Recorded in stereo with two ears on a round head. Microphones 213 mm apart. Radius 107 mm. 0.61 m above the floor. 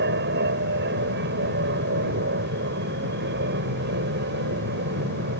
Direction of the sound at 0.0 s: 50° right (ahead or behind).